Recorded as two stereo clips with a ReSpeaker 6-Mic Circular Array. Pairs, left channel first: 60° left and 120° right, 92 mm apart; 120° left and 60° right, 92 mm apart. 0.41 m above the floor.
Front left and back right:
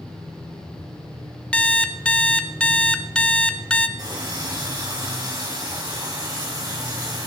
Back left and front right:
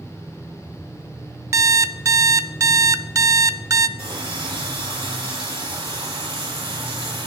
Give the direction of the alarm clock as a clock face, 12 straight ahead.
1 o'clock.